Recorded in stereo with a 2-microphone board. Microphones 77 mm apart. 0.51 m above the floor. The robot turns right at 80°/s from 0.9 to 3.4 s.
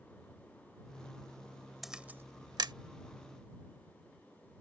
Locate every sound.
1.8 s a camera shutter: 5° right (ahead or behind); by 2.7 s 75° right (ahead or behind)